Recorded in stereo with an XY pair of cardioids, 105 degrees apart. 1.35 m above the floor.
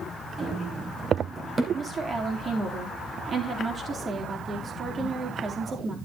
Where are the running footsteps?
40° right, 4.5 m; by 1.6 s 35° right, 3 m.